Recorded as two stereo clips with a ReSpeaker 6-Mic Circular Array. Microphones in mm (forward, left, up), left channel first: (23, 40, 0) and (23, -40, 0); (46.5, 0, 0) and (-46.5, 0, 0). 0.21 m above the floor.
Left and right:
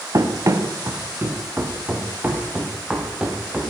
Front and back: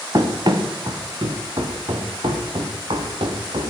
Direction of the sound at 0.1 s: 135° right.